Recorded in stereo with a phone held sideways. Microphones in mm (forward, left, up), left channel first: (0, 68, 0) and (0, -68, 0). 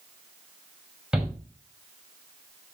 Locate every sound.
1.1 s a shout: 5° right (ahead or behind), 4.5 m